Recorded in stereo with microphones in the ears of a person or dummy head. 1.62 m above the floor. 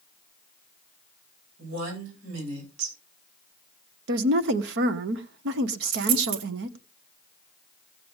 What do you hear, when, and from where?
1.6 s a woman speaking: 85° right, 9.5 m
4.1 s a woman speaking: 60° right (ahead or behind), 0.9 m
5.9 s a dropped coin: 50° right (ahead or behind), 2.5 m